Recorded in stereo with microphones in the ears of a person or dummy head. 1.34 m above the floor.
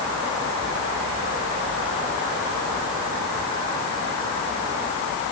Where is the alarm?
No alarm in this recording.